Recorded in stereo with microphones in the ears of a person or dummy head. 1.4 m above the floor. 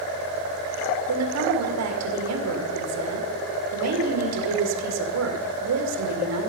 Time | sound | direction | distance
1.1 | a woman speaking | 85° right | 2 m